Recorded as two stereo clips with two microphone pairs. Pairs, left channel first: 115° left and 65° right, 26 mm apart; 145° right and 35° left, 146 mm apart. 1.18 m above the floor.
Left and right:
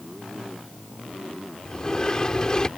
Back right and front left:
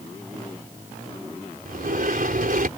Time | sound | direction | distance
1.6 | a sliding door | 55° left | ?